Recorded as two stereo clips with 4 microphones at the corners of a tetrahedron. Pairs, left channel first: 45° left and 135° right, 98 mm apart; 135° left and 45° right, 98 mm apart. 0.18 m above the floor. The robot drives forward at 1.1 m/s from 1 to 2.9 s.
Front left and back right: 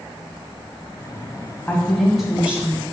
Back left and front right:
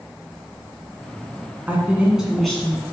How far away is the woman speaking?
About 1.6 m.